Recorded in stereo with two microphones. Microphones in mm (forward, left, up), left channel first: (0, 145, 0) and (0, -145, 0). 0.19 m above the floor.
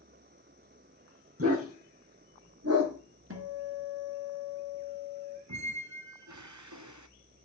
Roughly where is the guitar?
Right.